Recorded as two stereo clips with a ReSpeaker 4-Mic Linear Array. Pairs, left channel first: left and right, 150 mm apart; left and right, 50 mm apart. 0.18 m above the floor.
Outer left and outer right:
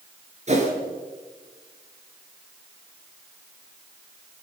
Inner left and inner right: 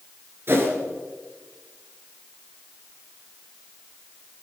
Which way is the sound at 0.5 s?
50° right (ahead or behind).